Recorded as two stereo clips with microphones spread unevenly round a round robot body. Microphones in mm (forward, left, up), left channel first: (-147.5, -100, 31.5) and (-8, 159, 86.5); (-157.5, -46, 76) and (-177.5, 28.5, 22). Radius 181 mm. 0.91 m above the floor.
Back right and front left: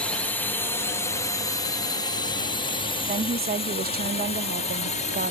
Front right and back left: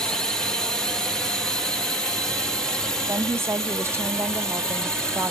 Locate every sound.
0.0 s a drone: 165° left; by 5.3 s 175° right
3.1 s a woman speaking: 125° left